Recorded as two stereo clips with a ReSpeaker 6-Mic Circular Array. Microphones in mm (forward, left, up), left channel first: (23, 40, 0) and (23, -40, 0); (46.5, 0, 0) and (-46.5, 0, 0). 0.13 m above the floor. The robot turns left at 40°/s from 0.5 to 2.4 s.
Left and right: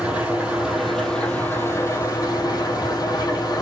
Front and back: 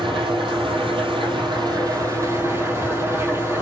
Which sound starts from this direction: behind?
An engine running, at 0.0 s.